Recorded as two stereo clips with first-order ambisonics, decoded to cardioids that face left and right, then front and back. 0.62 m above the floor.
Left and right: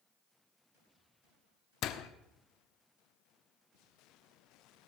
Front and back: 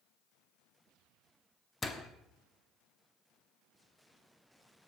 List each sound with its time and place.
1.8 s a door slam: 75° left, 0.9 m